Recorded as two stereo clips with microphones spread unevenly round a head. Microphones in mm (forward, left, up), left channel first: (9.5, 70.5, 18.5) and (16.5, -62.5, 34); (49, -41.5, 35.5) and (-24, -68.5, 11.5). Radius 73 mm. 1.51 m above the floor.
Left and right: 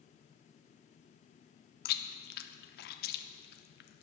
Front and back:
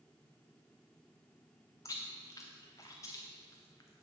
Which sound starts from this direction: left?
Chewing, at 1.9 s.